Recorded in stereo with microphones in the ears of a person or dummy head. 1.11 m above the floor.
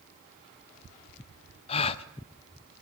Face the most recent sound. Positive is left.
turn(degrees=35)  # may be behind; listen again after turning